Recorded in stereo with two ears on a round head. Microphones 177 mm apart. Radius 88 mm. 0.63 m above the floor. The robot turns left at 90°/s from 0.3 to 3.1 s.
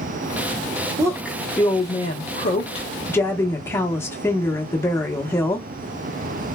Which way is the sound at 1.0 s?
150° right.